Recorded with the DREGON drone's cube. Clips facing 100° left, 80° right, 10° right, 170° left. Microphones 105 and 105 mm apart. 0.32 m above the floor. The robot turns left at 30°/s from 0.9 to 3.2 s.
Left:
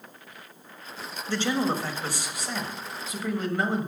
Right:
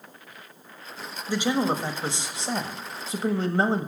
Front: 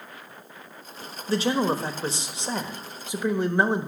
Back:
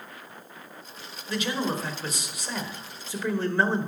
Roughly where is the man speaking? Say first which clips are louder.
Right 2 dB, front 5 dB; ahead.